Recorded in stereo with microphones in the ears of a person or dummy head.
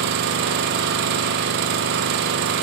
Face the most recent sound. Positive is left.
turn(degrees=-55)  # may be behind; listen again after turning